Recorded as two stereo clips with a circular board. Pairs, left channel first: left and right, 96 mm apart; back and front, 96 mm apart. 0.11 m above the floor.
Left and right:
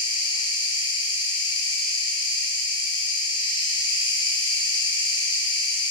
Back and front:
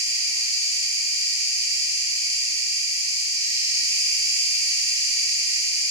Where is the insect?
55° left, 0.9 m.